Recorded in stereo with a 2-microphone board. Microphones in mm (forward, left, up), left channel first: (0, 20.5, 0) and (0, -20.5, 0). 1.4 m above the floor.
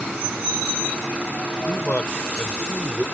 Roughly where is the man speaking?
Left.